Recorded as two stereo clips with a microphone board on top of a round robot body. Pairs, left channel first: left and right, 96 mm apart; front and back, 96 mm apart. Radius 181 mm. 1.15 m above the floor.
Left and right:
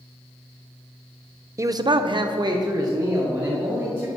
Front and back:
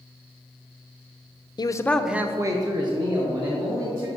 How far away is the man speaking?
About 0.6 m.